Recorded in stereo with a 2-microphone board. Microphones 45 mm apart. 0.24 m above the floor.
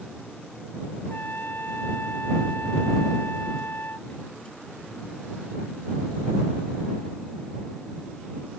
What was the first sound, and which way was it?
A trumpet, 50° left (ahead or behind).